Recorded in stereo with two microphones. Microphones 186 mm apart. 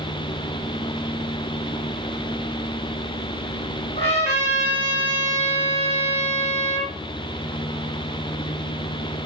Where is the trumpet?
40° left (ahead or behind), 1.2 m.